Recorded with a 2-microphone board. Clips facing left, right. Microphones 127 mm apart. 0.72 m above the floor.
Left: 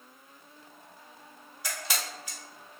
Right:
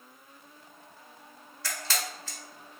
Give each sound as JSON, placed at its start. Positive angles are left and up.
{"t": 1.6, "sound": "a camera shutter", "side_deg": 15, "distance_m": 1.1}